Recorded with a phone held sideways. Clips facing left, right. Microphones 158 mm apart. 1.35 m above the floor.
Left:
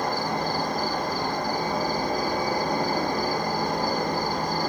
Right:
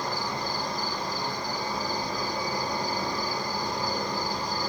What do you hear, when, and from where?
0.0 s an insect: 50° left (ahead or behind), 0.8 m